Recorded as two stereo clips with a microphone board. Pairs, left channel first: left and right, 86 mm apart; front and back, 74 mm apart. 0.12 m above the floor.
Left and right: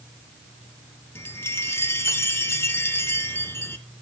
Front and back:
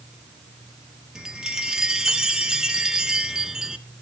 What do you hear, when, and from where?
1.1 s a chime: 105° left, 0.6 m